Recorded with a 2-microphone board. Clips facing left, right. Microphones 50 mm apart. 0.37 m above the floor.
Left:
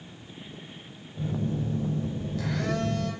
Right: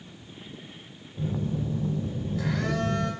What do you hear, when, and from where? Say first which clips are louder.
1.2 s a phone buzzing: even; 10° right (ahead or behind), 0.8 m